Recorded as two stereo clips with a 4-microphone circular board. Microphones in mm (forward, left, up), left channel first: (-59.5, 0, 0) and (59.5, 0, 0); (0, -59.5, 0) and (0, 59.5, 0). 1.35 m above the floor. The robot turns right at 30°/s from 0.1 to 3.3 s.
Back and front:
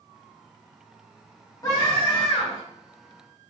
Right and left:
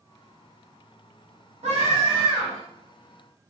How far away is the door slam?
No door slam in this recording.